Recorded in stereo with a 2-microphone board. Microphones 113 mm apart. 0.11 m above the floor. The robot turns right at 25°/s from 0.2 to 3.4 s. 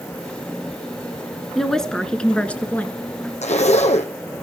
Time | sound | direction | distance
1.6 | a woman speaking | 5° left (ahead or behind) | 1.5 m
3.4 | a zipper | 80° left | 1.4 m